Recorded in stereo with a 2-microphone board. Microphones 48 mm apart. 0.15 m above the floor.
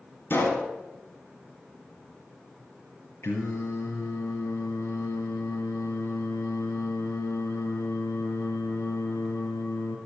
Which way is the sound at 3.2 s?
60° left (ahead or behind).